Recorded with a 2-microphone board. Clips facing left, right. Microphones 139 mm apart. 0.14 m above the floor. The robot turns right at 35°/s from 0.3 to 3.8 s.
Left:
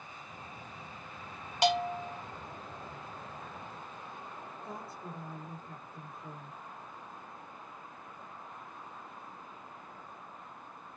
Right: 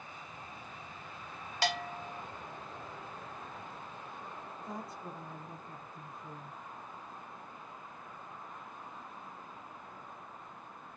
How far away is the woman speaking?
About 4 m.